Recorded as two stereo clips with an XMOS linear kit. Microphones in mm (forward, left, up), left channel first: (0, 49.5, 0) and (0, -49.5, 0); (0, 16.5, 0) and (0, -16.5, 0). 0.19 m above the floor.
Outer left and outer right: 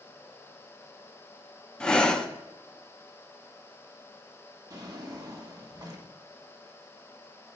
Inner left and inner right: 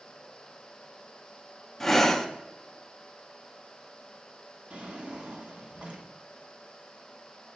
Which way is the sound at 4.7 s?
40° right (ahead or behind).